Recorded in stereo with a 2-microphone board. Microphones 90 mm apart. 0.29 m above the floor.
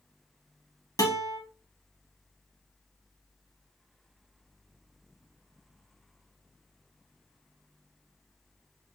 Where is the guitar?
35° left (ahead or behind), 1.4 m.